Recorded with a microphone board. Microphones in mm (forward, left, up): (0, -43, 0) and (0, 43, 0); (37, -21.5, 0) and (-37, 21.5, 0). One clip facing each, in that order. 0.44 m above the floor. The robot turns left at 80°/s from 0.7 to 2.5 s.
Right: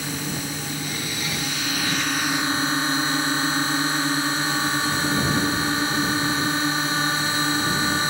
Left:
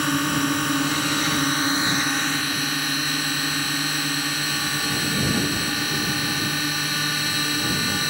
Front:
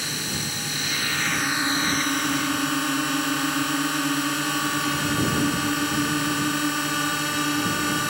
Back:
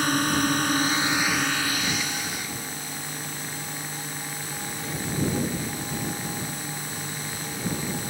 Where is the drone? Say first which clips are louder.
Left 8 dB, back 9 dB; 115° left; by 8.1 s 30° right.